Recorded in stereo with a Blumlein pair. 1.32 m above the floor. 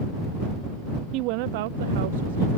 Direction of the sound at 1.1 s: 40° right.